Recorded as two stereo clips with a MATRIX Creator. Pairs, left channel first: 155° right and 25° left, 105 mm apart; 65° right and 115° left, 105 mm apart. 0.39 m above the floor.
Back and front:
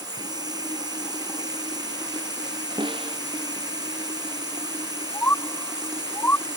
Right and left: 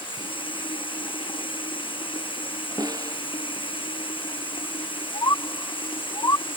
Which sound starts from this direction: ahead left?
A snare drum, at 2.8 s.